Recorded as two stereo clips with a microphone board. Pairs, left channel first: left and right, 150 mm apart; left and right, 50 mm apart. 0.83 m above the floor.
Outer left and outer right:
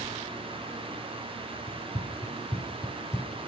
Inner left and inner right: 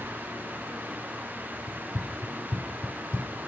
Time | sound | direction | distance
1.7 | running footsteps | 55° left (ahead or behind) | 1.4 m